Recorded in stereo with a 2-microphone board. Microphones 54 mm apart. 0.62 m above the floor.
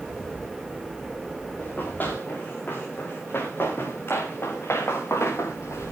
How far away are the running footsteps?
About 7.5 m.